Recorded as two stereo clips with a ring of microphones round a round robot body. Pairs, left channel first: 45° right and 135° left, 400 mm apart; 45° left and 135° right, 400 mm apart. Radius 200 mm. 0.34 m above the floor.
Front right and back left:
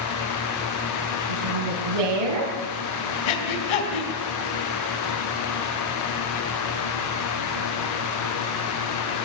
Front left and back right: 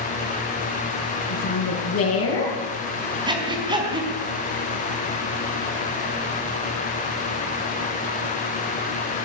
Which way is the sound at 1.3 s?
105° left.